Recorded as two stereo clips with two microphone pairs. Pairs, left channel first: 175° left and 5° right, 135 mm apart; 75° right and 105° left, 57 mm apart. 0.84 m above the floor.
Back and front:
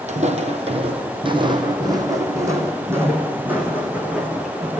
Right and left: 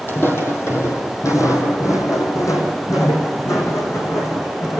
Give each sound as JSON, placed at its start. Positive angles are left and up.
{"t": 0.1, "sound": "footsteps", "azimuth_deg": -30, "distance_m": 2.0}